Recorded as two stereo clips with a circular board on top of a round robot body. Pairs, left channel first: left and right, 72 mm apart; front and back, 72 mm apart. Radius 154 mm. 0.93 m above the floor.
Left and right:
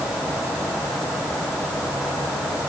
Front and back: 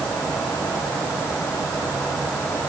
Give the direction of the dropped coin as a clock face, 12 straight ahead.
I don't hear a dropped coin.